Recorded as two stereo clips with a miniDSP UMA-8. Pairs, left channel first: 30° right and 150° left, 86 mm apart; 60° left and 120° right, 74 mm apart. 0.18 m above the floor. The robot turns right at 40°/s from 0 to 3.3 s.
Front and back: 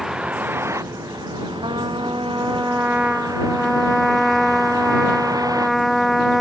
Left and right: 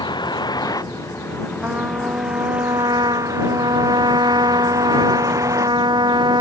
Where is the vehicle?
65° left; by 6.4 s 165° right.